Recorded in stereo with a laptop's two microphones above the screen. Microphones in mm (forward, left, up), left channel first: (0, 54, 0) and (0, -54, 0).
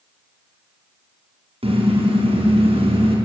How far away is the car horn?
About 4.5 m.